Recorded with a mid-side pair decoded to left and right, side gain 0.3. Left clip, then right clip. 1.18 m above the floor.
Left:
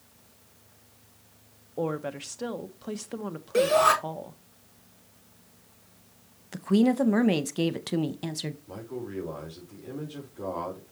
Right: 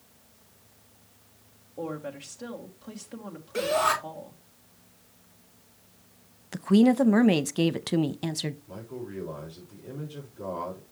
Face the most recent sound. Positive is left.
turn(degrees=65)